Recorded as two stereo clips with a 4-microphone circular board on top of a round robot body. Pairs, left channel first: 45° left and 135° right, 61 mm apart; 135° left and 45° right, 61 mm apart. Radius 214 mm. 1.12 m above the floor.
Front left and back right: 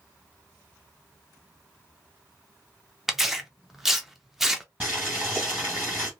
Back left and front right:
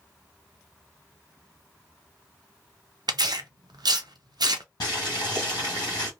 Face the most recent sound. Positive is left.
turn(degrees=155)